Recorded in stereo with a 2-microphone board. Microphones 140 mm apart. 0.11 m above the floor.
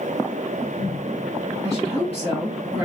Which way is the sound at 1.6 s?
25° right (ahead or behind).